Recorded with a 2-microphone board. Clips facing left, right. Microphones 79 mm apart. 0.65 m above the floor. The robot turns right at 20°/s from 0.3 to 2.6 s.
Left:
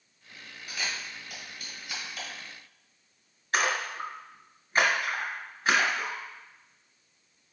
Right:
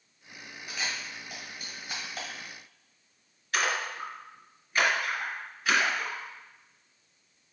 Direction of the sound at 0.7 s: 20° right (ahead or behind).